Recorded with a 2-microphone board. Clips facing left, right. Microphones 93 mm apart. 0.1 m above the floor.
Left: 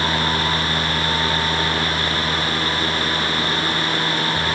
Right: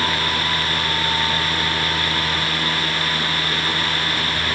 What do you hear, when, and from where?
Only background noise.